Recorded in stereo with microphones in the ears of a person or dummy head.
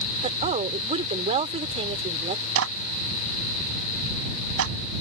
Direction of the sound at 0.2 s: 30° right (ahead or behind).